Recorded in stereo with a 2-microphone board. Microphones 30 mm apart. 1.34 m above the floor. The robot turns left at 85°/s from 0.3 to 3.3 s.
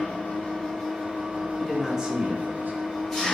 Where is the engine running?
55° left, 1.9 m; by 3.4 s 160° left, 1.9 m.